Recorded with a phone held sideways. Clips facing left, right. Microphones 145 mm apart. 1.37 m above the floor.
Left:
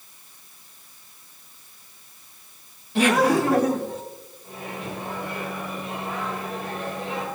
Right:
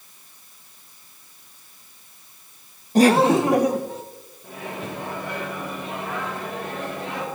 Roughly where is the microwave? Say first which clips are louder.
Right 2 dB; right.